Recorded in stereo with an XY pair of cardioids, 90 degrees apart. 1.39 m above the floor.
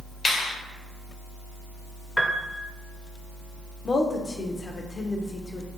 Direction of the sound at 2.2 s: 10° left.